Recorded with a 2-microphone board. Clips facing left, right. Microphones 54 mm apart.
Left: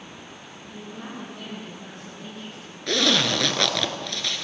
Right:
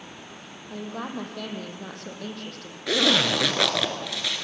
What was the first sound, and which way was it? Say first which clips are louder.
A woman speaking: right 5 dB; 70° right (ahead or behind).